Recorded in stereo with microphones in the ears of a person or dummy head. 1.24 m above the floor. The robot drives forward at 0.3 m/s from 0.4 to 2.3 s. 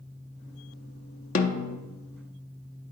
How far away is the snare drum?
About 0.5 m.